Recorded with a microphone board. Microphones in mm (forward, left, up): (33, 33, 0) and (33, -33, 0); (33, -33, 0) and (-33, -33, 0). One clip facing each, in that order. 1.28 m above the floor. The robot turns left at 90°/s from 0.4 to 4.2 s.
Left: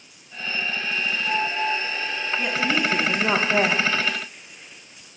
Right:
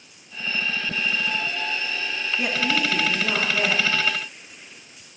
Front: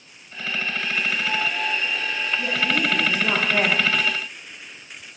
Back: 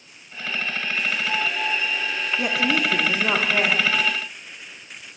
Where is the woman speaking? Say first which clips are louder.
Left 1 dB, back 2 dB; 165° right, 1.7 m; by 3.9 s 60° left, 1.7 m.